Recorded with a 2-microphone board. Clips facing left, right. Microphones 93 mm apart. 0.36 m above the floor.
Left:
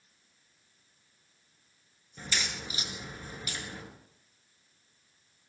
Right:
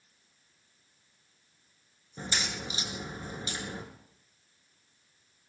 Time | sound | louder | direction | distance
2.2 | a crack | right 1 dB | 30° right (ahead or behind) | 4.5 m